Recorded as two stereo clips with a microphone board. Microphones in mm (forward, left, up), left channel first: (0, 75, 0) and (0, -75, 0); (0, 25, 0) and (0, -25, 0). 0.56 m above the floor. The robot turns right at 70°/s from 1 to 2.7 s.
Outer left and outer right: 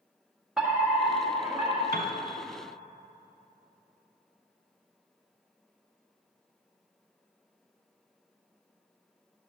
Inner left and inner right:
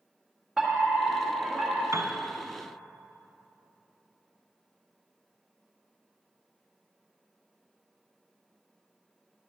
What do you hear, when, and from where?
0.6 s a fire alarm: centre (ahead or behind), 1.5 m; by 1.8 s 15° right (ahead or behind), 1.5 m
1.9 s a piano: 75° right (ahead or behind), 0.9 m; by 2.1 s 70° right (ahead or behind), 0.9 m